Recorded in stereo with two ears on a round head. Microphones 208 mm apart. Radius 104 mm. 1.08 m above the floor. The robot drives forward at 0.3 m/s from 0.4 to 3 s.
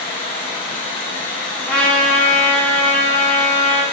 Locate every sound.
0.0 s running water: 25° left (ahead or behind), 1.1 m; by 3.9 s 15° left (ahead or behind), 1.8 m
1.7 s a trumpet: 5° left (ahead or behind), 0.8 m; by 3.8 s 10° left (ahead or behind), 0.6 m